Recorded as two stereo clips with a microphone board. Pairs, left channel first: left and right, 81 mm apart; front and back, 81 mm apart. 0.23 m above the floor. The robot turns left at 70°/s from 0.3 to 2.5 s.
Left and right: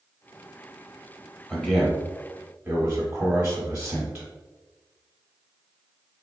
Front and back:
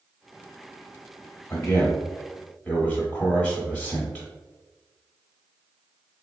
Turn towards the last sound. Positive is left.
turn(degrees=-60)